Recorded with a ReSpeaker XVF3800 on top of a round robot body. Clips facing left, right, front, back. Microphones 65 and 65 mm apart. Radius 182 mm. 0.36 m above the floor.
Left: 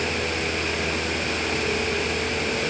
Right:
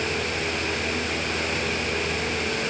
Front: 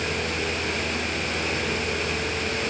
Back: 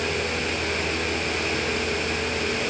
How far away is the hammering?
No hammering in this recording.